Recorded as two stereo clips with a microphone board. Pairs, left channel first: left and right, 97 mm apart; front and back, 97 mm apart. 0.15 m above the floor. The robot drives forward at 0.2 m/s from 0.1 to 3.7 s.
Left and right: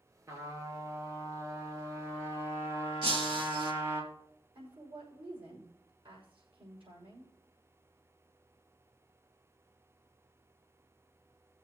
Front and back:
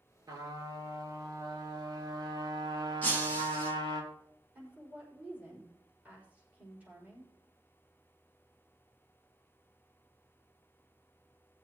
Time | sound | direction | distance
0.3 | a trumpet | 140° right | 2.5 m
3.0 | breaking glass | 70° right | 3.5 m
4.5 | a woman speaking | 105° right | 5.5 m